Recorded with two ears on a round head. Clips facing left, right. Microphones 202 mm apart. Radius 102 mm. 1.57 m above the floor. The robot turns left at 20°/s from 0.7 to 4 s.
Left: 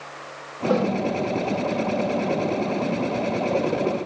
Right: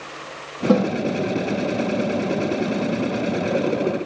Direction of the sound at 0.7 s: 50° right (ahead or behind).